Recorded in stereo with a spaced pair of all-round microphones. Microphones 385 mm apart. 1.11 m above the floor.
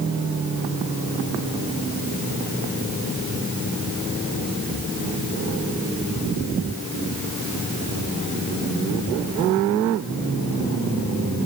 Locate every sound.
Only background noise.